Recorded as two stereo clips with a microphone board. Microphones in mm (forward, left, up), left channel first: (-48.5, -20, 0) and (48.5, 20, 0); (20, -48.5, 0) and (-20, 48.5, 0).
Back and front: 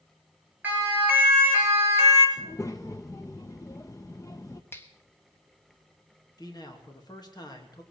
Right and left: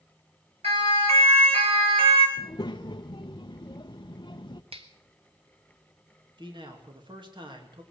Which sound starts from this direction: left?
A siren, at 0.6 s.